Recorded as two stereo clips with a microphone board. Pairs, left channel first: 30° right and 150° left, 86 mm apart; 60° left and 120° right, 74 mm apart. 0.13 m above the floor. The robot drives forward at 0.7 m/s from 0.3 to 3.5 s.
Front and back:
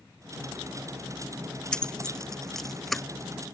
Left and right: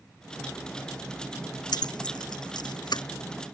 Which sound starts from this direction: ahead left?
Keys jangling, at 1.7 s.